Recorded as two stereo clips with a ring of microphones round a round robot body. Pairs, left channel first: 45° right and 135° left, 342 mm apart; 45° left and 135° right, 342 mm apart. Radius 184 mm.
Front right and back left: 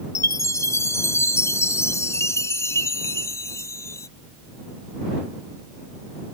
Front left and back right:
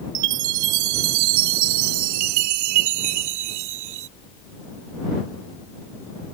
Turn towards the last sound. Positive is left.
turn(degrees=-125)